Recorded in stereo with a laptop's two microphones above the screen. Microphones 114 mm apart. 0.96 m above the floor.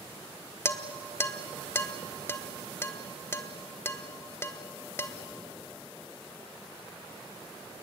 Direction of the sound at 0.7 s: 25° left (ahead or behind).